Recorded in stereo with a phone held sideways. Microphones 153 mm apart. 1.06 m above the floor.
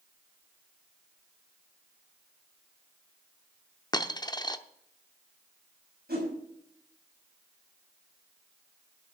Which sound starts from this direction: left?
A dropped coin, at 3.9 s.